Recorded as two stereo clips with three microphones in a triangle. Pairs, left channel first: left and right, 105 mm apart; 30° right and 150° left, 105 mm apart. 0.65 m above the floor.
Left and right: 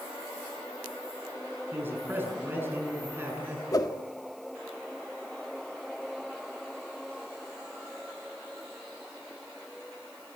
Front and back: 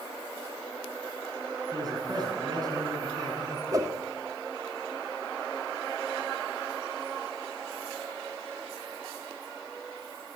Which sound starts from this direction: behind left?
A whoosh, at 3.7 s.